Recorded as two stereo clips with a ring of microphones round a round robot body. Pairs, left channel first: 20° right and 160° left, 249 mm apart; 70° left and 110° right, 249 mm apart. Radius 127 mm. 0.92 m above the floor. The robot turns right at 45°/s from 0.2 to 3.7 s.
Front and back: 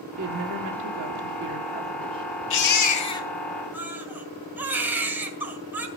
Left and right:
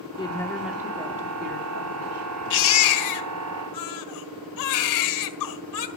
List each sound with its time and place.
0.2 s a woman speaking: 140° left, 2 m; by 2.3 s 125° right, 2 m
2.5 s a baby crying: 20° left, 1.8 m; by 5.9 s 75° left, 1.8 m